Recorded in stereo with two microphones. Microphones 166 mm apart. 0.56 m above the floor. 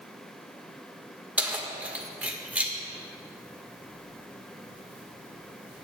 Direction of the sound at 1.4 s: 10° right (ahead or behind).